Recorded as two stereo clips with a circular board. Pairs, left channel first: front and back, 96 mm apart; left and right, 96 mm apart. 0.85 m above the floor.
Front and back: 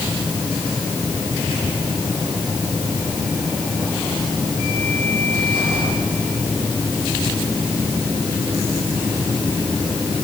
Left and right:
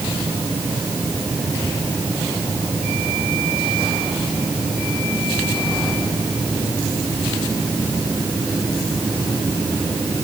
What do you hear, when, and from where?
Only background noise.